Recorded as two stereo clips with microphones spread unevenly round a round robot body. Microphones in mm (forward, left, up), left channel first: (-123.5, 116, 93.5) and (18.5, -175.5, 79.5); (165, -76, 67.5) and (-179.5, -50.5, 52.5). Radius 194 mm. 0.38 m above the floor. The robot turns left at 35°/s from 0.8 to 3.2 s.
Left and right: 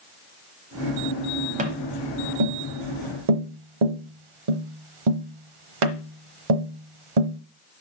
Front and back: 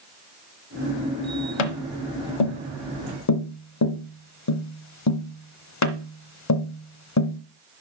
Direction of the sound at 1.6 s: 5° left.